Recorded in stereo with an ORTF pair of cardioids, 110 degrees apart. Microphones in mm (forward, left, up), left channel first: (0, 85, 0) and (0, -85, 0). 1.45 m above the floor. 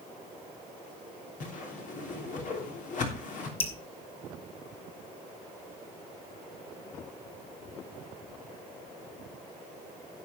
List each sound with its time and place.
1.4 s a whoosh: 55° left, 3 m
3.6 s dripping: 40° left, 2.5 m